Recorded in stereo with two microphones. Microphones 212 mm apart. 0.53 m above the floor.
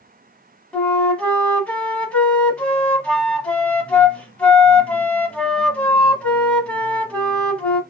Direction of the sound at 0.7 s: 5° left (ahead or behind).